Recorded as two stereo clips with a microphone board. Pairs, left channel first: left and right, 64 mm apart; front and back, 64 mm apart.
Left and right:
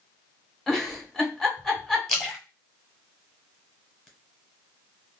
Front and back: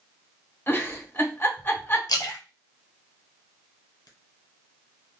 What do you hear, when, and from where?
0.7 s a giggle: 15° left, 1.0 m
2.1 s a splash: 5° left, 1.1 m